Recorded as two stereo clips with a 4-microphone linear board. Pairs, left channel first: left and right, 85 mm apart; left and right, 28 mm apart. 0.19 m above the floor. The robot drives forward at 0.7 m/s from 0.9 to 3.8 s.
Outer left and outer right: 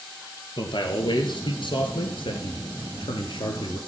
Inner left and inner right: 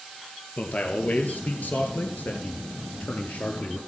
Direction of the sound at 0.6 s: 60° left (ahead or behind).